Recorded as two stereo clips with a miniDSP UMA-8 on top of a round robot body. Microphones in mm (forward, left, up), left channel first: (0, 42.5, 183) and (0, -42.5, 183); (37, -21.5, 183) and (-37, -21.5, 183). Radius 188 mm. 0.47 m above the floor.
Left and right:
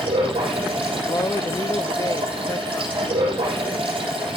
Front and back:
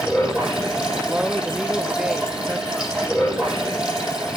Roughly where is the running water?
Right.